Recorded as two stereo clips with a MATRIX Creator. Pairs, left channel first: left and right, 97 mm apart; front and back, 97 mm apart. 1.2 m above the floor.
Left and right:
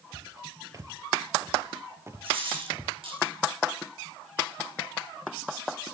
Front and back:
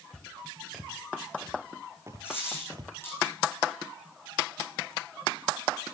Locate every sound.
0.1 s footsteps: 70° right, 1.4 m; by 3.0 s 155° right, 1.7 m
2.2 s a dropped coin: 70° right, 9 m